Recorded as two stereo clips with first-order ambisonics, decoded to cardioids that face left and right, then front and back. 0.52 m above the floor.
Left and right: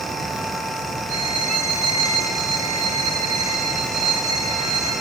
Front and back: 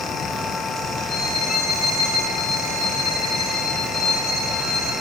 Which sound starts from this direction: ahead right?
A violin, at 1.1 s.